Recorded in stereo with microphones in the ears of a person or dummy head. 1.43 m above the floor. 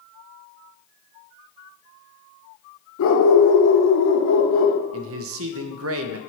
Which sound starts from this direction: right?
A man speaking, at 4.9 s.